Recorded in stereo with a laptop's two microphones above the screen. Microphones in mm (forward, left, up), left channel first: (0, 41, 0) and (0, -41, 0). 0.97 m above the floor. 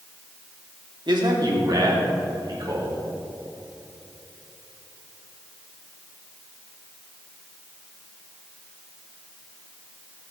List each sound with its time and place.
1.1 s a man speaking: 65° right (ahead or behind), 1.9 m; by 3.0 s 50° right (ahead or behind), 3.5 m